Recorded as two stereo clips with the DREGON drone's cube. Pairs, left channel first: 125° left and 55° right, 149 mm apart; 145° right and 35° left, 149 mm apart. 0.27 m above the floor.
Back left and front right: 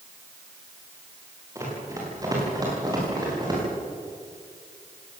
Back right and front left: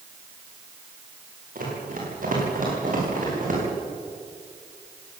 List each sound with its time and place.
1.6 s running footsteps: 15° left, 10 m; by 3.6 s 5° left, 11 m